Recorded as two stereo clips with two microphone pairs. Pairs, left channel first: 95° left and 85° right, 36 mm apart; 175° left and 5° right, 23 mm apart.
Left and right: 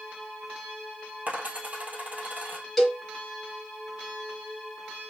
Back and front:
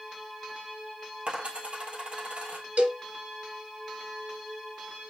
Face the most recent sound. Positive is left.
turn(degrees=5)